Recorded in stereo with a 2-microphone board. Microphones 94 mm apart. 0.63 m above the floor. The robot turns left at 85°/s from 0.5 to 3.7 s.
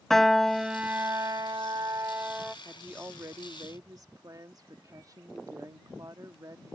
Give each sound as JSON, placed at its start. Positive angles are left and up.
{"t": 0.1, "sound": "a piano", "azimuth_deg": 5}
{"t": 2.6, "sound": "a woman speaking", "azimuth_deg": -5}